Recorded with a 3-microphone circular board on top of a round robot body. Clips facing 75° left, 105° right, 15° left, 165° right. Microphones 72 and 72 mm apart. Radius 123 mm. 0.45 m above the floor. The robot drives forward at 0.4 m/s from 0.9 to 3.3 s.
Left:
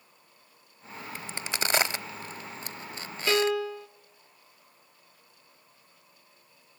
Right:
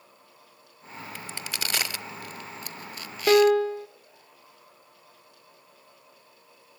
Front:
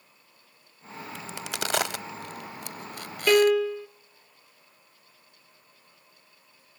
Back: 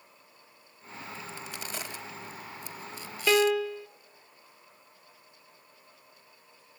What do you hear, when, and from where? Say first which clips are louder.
1.1 s a crack: left 3 dB, front 8 dB; 5° left, 1.3 m; by 3.5 s 20° left, 0.5 m
3.3 s a piano: right 8 dB, front 4 dB; 75° right, 0.8 m